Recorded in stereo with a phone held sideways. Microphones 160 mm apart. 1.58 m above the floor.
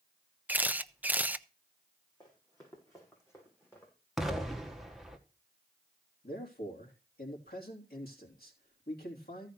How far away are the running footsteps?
About 5.5 m.